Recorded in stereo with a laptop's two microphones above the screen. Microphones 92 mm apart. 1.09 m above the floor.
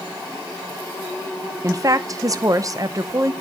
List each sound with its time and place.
1.6 s a woman speaking: 40° right (ahead or behind), 0.7 m